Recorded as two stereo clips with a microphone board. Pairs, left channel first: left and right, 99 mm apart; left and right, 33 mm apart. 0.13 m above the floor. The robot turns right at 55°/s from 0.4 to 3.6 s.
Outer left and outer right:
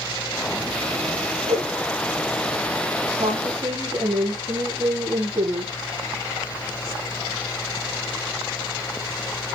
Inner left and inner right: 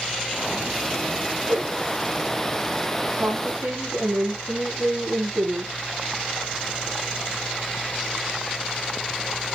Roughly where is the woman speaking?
Right.